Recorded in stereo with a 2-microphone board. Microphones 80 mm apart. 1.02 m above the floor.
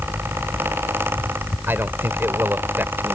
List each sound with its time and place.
1.7 s a man speaking: 30° right (ahead or behind)